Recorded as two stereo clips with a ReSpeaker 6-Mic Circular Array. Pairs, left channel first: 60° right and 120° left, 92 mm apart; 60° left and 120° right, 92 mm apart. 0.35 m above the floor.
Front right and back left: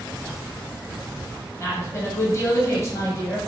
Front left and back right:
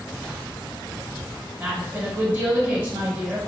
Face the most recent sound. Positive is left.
turn(degrees=-70)